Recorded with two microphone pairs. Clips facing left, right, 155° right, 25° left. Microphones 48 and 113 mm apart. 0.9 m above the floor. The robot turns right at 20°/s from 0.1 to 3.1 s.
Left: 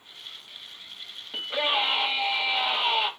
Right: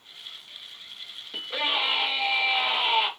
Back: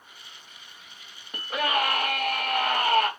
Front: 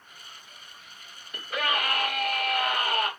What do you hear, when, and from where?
1.3 s a scream: 160° left, 1.6 m; by 3.1 s 165° right, 1.6 m